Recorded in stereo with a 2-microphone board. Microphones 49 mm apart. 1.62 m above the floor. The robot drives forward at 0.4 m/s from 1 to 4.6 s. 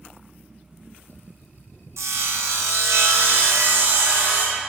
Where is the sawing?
75° right (ahead or behind), 1.0 m; by 4.6 s 40° right (ahead or behind), 1.4 m.